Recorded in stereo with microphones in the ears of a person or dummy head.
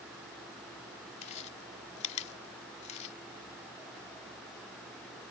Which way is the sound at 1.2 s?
35° left (ahead or behind).